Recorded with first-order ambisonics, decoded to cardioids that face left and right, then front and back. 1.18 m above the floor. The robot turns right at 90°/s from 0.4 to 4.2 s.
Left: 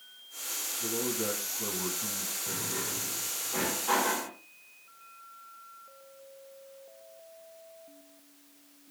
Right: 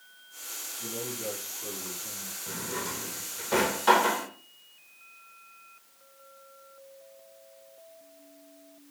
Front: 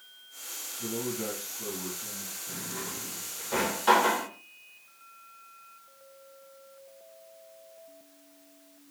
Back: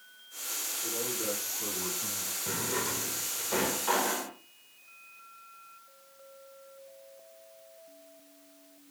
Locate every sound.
0.8 s a man speaking: 5° right, 7.5 m; by 2.4 s 140° left, 7.5 m
2.5 s a drawer: 175° left, 2.5 m; by 4.3 s 30° right, 2.5 m